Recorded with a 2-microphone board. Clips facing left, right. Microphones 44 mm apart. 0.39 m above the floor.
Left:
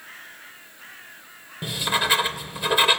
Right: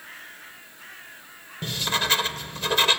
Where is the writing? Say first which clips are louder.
Left 2 dB; 10° left (ahead or behind), 1.4 m.